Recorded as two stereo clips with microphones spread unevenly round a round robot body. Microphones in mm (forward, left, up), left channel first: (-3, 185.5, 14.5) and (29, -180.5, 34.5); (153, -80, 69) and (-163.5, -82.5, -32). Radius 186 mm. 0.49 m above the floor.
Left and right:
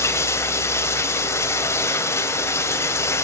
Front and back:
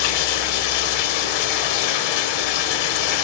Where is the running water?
15° left, 2 m.